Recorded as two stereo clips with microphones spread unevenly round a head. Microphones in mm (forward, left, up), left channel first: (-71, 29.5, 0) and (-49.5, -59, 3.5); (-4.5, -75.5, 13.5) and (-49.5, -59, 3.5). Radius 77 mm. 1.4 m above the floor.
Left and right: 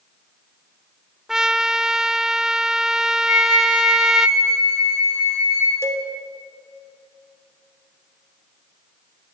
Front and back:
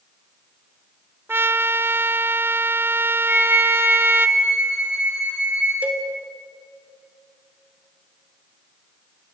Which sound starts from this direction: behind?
A trumpet, at 1.3 s.